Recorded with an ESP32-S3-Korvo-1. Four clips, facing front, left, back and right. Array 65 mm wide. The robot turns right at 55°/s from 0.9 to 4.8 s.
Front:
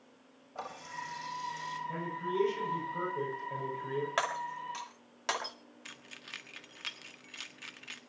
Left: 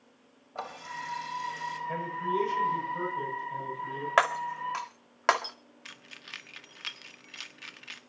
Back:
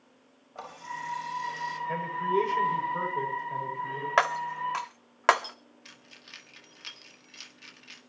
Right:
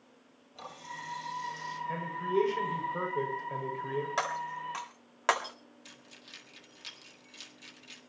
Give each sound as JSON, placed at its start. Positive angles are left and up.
{"t": 0.6, "sound": "a running tap", "azimuth_deg": 95, "distance_m": 4.5}
{"t": 1.9, "sound": "a man speaking", "azimuth_deg": 180, "distance_m": 7.0}
{"t": 4.2, "sound": "breaking glass", "azimuth_deg": 125, "distance_m": 1.9}
{"t": 5.8, "sound": "keys jangling", "azimuth_deg": 65, "distance_m": 1.7}